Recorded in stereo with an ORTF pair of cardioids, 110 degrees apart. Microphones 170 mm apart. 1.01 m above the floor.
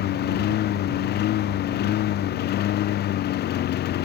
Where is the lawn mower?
65° left.